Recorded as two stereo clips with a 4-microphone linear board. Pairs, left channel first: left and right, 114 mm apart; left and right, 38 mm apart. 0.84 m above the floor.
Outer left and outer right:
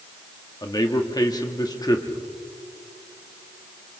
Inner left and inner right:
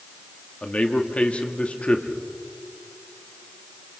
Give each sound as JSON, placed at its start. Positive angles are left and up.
{"t": 0.6, "sound": "a man speaking", "side_deg": 35, "distance_m": 1.8}